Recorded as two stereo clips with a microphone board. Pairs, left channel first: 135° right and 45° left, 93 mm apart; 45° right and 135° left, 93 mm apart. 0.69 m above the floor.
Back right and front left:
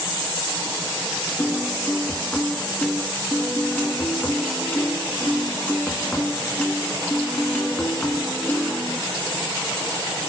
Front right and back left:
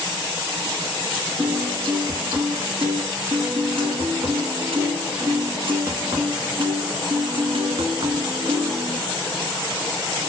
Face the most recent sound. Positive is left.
turn(degrees=150)